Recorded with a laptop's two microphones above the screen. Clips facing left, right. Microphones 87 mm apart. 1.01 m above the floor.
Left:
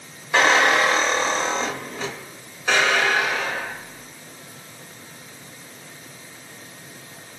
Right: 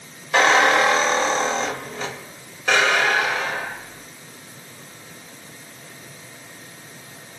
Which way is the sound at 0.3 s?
5° left (ahead or behind).